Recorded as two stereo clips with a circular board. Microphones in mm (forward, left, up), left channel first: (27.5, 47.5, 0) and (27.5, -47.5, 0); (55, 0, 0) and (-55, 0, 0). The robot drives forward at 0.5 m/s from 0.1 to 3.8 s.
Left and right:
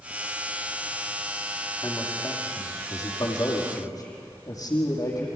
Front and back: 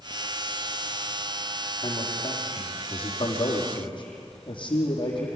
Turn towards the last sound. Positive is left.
turn(degrees=40)